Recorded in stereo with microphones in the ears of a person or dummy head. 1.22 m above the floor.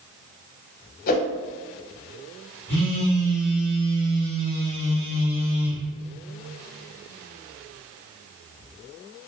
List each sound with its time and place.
1.1 s a whoosh: 45° left (ahead or behind), 0.8 m
2.7 s a phone buzzing: 20° left (ahead or behind), 1.7 m